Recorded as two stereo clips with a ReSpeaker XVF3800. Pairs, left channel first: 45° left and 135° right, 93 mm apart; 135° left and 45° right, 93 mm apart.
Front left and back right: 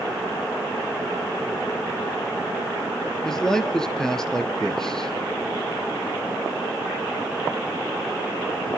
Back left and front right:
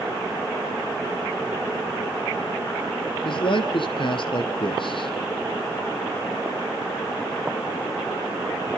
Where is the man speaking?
130° left, 2.5 m.